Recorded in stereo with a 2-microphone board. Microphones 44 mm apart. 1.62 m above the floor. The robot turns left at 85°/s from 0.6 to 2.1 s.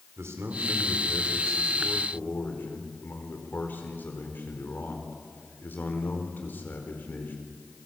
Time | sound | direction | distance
0.2 | a man speaking | 105° right | 4.5 m